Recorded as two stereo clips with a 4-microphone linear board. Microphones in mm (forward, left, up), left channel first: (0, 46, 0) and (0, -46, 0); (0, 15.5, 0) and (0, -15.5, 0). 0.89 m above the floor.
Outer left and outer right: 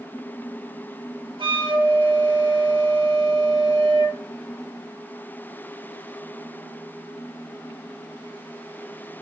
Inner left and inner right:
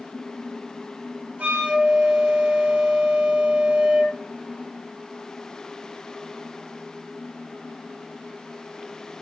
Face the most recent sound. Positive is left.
turn(degrees=-65)  # may be behind; listen again after turning